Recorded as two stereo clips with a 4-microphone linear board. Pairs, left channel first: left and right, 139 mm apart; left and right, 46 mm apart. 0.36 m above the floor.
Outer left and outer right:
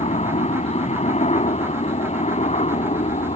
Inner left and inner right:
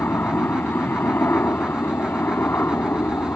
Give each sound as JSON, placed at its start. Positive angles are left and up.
{"t": 0.0, "sound": "a helicopter", "side_deg": 50}